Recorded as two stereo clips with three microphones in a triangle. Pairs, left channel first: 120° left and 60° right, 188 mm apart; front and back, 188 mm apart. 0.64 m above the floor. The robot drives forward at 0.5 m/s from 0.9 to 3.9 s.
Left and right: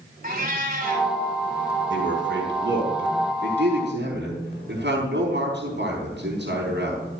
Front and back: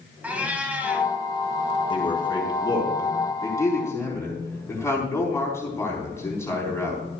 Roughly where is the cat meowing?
Right.